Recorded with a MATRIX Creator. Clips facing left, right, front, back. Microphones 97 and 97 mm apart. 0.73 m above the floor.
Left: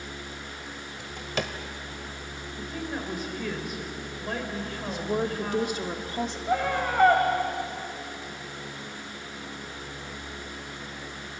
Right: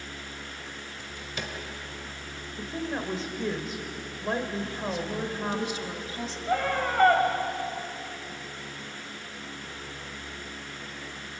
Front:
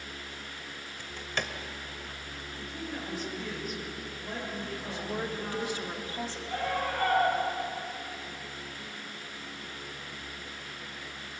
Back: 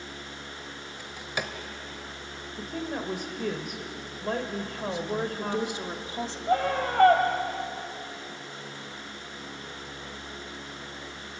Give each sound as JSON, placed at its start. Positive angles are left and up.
{"t": 1.0, "sound": "a drawer", "azimuth_deg": 100, "distance_m": 1.3}
{"t": 2.6, "sound": "a woman speaking", "azimuth_deg": -155, "distance_m": 2.5}
{"t": 4.9, "sound": "a woman speaking", "azimuth_deg": 115, "distance_m": 1.5}
{"t": 6.5, "sound": "a scream", "azimuth_deg": 175, "distance_m": 4.0}